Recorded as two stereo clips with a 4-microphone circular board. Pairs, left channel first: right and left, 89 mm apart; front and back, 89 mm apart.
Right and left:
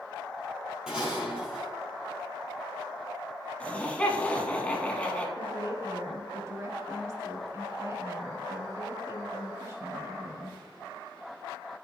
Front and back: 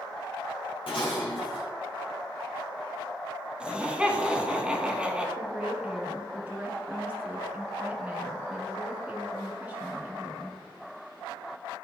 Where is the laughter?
130° right, 1.2 m.